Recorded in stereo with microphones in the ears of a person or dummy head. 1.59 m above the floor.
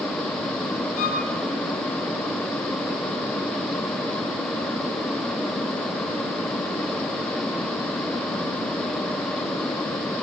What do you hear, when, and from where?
1.0 s a violin: 40° left (ahead or behind), 8 m